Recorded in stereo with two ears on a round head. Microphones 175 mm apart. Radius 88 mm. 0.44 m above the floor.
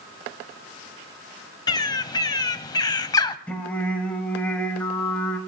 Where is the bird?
20° left (ahead or behind), 0.6 m.